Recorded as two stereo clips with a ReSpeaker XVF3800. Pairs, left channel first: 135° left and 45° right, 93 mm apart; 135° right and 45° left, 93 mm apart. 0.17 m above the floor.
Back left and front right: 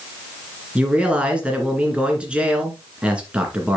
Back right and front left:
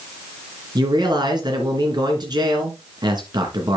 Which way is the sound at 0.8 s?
30° left.